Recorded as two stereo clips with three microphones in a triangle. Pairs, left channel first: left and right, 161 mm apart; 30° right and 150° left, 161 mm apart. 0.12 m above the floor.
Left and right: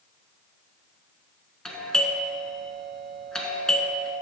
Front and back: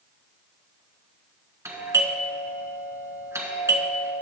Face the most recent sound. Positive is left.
turn(degrees=170)